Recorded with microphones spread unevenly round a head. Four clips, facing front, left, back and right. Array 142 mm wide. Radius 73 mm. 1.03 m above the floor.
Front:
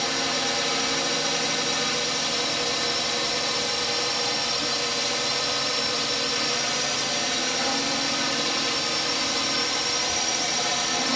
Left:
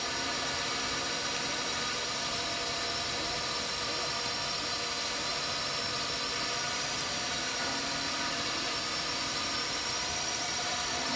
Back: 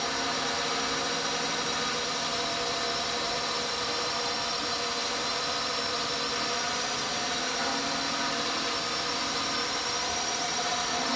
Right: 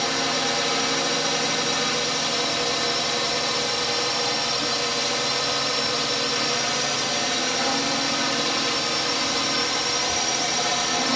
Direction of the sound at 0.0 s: 70° right.